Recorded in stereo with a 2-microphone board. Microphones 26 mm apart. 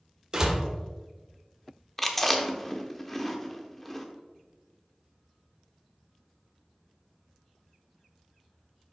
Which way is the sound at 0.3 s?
30° right (ahead or behind).